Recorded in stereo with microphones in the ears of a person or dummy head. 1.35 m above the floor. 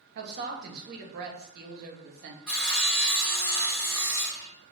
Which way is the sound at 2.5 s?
Centre (ahead or behind).